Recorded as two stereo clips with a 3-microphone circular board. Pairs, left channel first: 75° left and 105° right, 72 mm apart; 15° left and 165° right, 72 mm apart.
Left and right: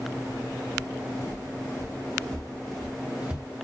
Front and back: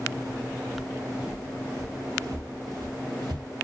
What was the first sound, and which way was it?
Footsteps, 115° left.